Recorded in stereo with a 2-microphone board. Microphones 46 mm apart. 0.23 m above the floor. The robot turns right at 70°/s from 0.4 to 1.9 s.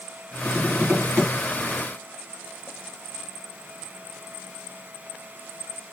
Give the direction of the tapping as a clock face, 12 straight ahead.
5 o'clock.